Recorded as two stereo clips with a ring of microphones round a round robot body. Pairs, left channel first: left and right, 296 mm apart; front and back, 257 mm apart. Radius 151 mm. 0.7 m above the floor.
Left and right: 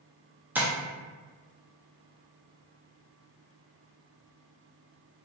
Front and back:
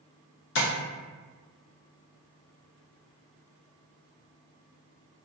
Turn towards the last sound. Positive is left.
turn(degrees=-10)